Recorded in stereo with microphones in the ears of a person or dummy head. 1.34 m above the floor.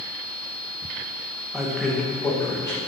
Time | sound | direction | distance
1.5 | a man speaking | 5° left (ahead or behind) | 1.6 m